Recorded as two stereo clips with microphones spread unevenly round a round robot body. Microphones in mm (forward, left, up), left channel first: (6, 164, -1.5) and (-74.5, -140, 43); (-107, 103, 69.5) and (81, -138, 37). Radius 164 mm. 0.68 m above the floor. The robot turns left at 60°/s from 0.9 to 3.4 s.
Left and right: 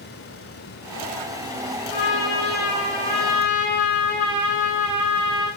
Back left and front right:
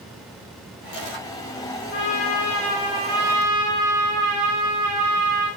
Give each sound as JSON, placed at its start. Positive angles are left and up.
{"t": 1.9, "sound": "a trumpet", "azimuth_deg": 80, "distance_m": 10.0}